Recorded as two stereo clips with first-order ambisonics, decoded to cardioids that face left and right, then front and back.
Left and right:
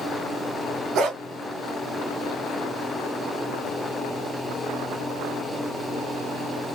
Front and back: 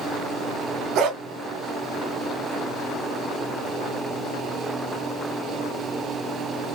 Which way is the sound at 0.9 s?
140° right.